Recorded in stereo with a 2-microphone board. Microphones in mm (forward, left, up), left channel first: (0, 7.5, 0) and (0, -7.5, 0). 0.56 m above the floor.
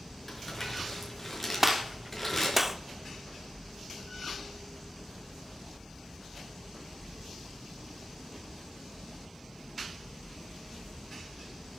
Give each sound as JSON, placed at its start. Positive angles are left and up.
{"t": 0.3, "sound": "crumpling", "side_deg": 15, "distance_m": 5.0}
{"t": 1.6, "sound": "a gunshot", "side_deg": -15, "distance_m": 0.9}